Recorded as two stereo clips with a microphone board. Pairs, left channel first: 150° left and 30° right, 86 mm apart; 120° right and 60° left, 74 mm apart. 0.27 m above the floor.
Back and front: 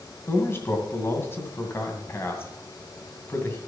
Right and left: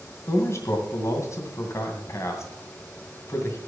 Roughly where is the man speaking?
Behind right.